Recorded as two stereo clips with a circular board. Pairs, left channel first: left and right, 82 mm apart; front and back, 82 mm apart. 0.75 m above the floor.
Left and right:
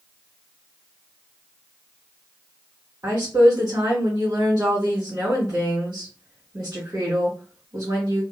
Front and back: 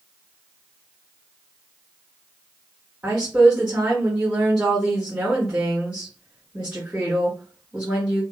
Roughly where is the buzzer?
I don't hear a buzzer.